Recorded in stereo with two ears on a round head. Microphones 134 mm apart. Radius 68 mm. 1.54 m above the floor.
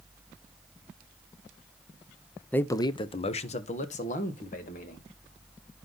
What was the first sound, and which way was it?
A man speaking, 10° left (ahead or behind).